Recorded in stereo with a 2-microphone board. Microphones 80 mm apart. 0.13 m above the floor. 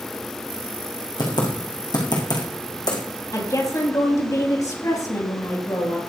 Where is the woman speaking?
45° left (ahead or behind), 4 m.